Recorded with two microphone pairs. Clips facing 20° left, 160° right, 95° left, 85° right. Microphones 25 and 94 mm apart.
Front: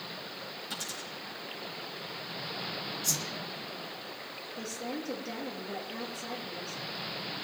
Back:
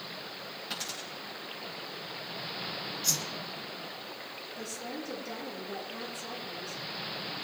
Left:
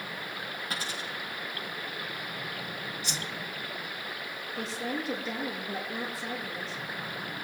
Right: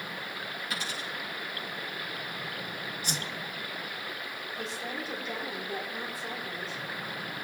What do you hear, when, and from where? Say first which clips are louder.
0.7 s a dropped coin: back 2 dB, even; 145° left, 7.5 m
3.0 s a whoosh: back 2 dB, right 1 dB; 120° right, 1.7 m
4.6 s a woman speaking: front 3 dB, left 4 dB; 85° left, 5 m